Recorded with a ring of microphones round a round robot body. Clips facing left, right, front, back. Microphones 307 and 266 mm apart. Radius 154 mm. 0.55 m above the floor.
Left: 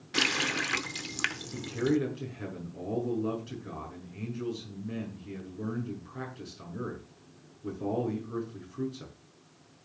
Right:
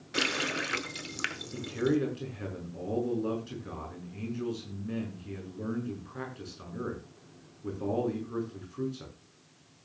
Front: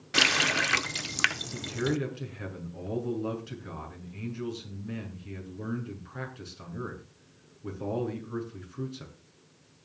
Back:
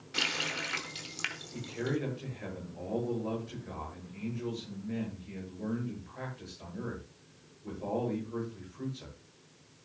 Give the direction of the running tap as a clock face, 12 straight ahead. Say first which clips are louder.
Even, front 8 dB; 12 o'clock.